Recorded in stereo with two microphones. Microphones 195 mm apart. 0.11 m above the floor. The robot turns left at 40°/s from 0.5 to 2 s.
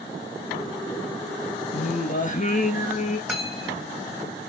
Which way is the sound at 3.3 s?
Centre (ahead or behind).